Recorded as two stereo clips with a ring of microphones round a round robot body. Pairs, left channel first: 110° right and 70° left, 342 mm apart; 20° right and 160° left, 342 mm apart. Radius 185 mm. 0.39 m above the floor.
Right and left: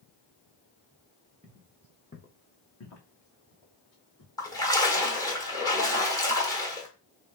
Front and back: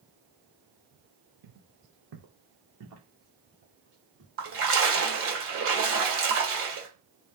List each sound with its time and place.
1.4 s footsteps: 140° left, 0.9 m; by 4.3 s 140° right, 2.5 m
4.4 s a splash: 175° left, 1.5 m